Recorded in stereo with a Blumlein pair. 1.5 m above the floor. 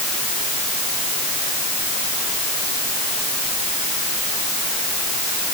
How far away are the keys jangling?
I don't hear keys jangling.